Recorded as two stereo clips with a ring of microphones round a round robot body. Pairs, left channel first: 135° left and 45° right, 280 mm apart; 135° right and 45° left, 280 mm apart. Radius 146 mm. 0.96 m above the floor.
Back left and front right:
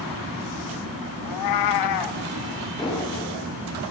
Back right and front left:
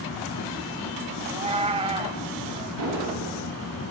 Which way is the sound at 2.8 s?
60° left.